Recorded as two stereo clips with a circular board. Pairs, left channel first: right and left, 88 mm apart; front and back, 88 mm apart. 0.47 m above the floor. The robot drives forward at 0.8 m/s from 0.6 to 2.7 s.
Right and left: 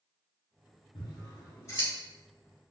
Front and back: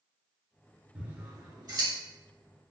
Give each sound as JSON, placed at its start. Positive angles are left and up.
{"t": 0.9, "sound": "scissors", "azimuth_deg": -105, "distance_m": 0.7}